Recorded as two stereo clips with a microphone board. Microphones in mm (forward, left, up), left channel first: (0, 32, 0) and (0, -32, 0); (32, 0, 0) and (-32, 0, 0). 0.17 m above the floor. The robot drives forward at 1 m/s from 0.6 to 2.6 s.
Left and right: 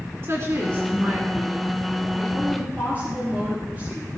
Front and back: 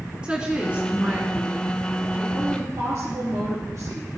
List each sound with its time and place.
0.2 s a woman speaking: 110° right, 2 m; by 4.1 s 150° right, 3.5 m